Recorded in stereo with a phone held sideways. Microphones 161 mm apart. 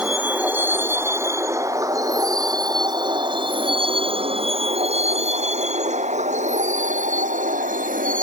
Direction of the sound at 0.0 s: 10° right (ahead or behind).